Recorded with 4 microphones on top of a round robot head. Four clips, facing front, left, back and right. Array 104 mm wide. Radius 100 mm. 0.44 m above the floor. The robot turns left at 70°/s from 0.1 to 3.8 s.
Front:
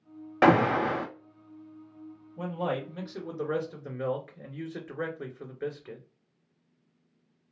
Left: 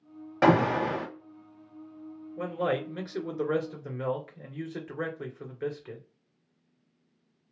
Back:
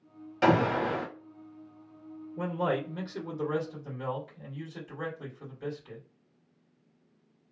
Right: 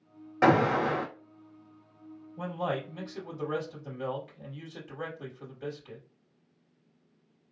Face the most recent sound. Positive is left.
turn(degrees=45)